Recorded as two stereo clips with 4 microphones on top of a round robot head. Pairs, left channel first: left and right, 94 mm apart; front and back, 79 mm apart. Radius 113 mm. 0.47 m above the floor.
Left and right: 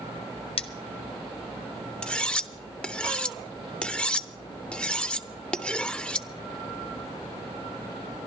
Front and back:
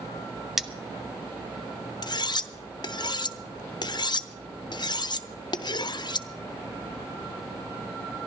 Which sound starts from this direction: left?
Cutlery clinking, at 0.6 s.